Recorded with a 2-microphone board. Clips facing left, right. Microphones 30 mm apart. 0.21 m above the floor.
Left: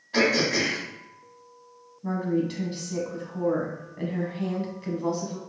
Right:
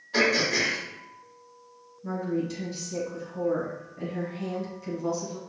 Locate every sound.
0.1 s throat clearing: 10° left (ahead or behind), 1.7 m
2.0 s a woman speaking: 40° left (ahead or behind), 1.2 m